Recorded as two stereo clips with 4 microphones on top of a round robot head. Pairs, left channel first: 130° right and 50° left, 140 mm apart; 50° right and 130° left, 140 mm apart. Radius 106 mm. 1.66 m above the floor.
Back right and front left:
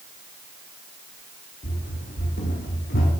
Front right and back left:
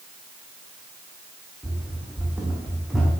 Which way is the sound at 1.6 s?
155° right.